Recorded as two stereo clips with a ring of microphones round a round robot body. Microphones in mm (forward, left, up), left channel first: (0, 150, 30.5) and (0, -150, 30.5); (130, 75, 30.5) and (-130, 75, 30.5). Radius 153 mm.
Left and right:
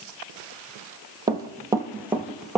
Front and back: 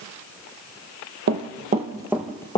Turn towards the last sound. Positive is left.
turn(degrees=0)